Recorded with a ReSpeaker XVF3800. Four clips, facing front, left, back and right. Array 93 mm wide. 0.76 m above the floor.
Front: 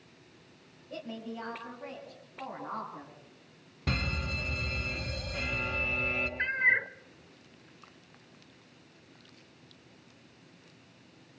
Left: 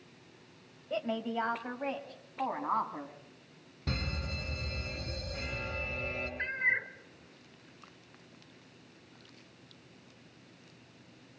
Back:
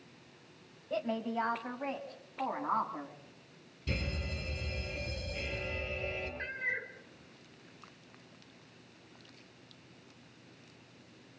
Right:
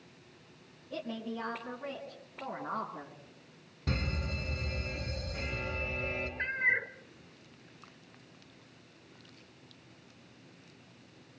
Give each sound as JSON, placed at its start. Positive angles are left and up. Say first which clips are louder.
{"t": 0.9, "sound": "a woman speaking", "louder": "left 5 dB, back 6 dB", "azimuth_deg": 125, "distance_m": 4.0}
{"t": 3.9, "sound": "a fire alarm", "louder": "right 2 dB, front 5 dB", "azimuth_deg": 0, "distance_m": 6.5}
{"t": 6.4, "sound": "a cat meowing", "louder": "right 1 dB, front 13 dB", "azimuth_deg": -5, "distance_m": 0.8}